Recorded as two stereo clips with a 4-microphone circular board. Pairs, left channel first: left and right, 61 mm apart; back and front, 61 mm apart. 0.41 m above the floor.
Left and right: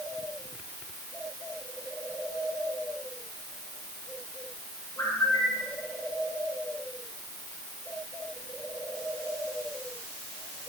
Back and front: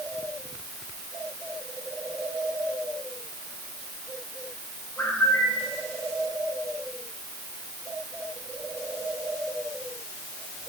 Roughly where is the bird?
Behind left.